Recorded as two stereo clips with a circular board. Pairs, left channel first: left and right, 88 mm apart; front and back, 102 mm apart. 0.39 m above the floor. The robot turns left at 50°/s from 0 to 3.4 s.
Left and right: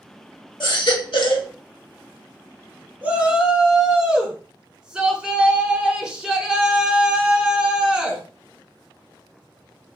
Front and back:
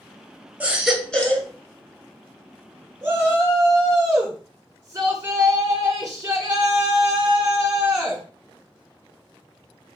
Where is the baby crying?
105° left, 0.8 m; by 1.5 s 60° left, 0.8 m.